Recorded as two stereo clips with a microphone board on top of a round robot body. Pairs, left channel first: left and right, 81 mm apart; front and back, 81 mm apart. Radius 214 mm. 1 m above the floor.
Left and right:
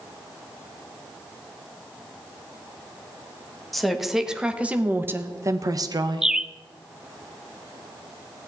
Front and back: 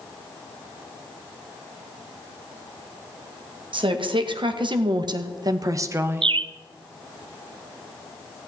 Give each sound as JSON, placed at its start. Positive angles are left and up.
{"t": 3.7, "sound": "a woman speaking", "azimuth_deg": 180, "distance_m": 2.0}
{"t": 6.2, "sound": "a bird", "azimuth_deg": -175, "distance_m": 0.5}